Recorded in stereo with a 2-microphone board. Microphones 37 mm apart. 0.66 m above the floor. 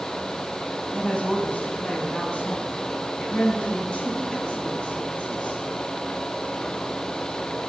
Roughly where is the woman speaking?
Left.